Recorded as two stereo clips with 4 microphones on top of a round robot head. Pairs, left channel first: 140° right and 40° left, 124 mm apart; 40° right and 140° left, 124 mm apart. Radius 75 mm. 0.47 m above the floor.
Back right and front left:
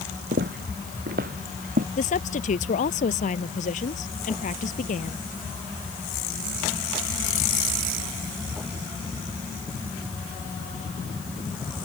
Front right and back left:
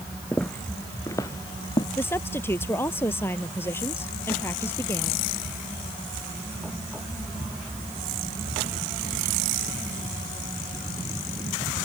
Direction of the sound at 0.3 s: 45° left.